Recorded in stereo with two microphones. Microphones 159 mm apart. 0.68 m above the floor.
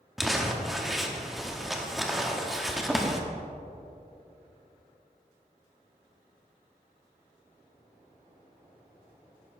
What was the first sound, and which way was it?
Crumpling, centre (ahead or behind).